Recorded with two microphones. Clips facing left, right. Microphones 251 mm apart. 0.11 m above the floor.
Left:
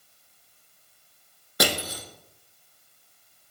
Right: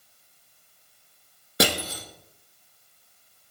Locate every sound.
1.6 s crushing: 25° right (ahead or behind), 1.0 m